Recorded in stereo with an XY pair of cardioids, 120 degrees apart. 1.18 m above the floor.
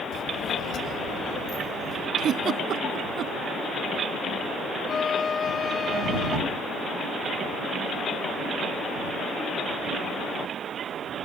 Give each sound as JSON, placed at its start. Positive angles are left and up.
{"t": 0.1, "sound": "a child speaking", "azimuth_deg": 55}
{"t": 2.2, "sound": "a giggle", "azimuth_deg": -55}
{"t": 4.9, "sound": "a violin", "azimuth_deg": 30}